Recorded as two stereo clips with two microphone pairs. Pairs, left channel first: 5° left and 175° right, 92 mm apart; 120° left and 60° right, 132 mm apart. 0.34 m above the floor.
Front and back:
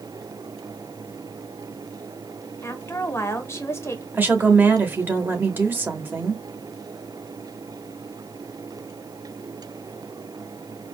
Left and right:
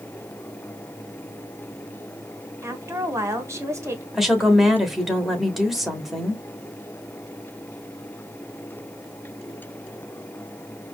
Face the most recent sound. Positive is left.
turn(degrees=-145)